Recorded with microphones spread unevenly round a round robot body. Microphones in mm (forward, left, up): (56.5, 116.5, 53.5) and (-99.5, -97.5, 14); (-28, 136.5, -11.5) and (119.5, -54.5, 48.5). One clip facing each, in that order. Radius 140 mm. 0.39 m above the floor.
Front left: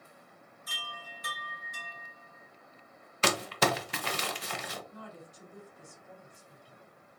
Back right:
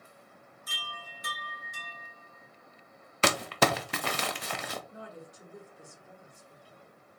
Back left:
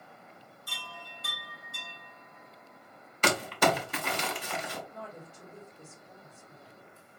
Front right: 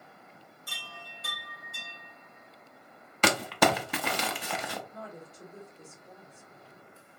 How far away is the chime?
About 1.5 m.